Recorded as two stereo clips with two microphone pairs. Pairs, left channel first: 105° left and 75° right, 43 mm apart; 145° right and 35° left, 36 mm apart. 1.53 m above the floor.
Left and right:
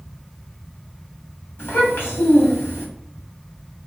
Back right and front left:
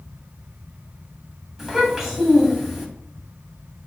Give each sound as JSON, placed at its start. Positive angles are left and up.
{"t": 1.6, "sound": "a child speaking", "azimuth_deg": 110, "distance_m": 1.5}